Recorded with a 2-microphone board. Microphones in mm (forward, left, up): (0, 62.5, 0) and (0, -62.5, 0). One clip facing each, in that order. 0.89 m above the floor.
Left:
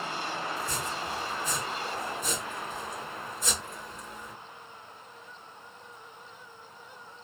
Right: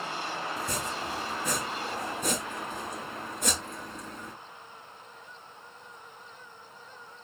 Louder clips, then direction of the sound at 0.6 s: Even; 70° right (ahead or behind).